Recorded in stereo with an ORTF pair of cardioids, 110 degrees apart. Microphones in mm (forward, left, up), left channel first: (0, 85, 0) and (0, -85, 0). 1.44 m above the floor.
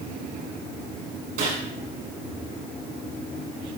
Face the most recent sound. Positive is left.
turn(degrees=-70)